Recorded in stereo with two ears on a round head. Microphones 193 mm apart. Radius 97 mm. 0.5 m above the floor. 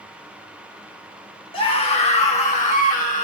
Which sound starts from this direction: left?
A scream, at 1.5 s.